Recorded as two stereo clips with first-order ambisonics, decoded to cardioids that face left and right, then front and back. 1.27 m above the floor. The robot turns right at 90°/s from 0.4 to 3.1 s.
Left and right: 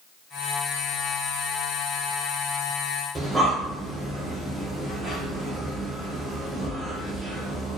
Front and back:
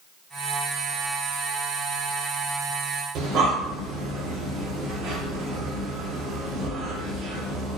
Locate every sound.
3.1 s breathing: 170° right, 0.7 m